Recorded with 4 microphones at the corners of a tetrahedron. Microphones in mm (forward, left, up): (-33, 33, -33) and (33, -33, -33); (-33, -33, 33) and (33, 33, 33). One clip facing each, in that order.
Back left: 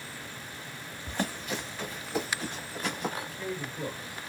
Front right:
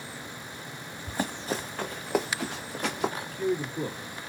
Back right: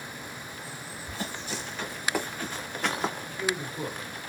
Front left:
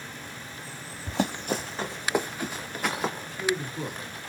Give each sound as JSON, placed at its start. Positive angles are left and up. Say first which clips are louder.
{"t": 1.1, "sound": "running footsteps", "louder": "front right 2 dB, front left 9 dB", "azimuth_deg": 40, "distance_m": 0.7}
{"t": 3.2, "sound": "a man speaking", "louder": "front right 7 dB, front left 2 dB", "azimuth_deg": -35, "distance_m": 2.0}